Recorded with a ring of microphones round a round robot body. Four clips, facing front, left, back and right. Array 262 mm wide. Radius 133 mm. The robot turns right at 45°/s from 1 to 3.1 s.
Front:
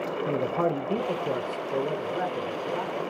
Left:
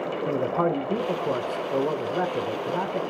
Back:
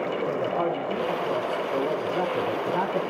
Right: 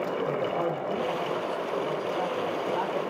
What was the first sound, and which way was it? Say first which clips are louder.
A man speaking: left 4 dB, front 2 dB; 65° left.